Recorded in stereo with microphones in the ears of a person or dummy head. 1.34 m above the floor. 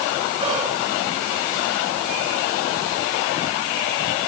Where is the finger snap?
No finger snap in this recording.